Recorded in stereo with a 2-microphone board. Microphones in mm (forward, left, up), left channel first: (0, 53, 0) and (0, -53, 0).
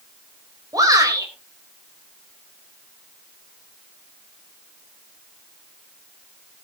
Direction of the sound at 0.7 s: 35° right (ahead or behind).